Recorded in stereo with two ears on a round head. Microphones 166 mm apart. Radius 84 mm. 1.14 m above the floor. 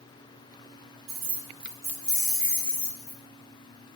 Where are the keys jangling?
60° right (ahead or behind), 0.5 m; by 3.2 s 20° left (ahead or behind), 1.1 m.